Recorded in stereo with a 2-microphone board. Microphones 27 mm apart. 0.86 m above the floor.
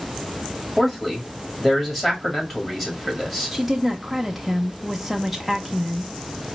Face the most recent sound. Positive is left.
turn(degrees=-5)  # may be behind; listen again after turning